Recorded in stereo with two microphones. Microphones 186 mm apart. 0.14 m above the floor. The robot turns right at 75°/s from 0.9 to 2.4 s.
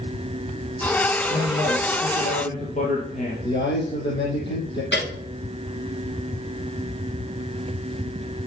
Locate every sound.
1.3 s a man speaking: 50° left, 3.5 m; by 3.3 s 135° left, 3.5 m
3.4 s a man speaking: 70° left (ahead or behind), 6 m
4.9 s a piano: 75° left (ahead or behind), 5.5 m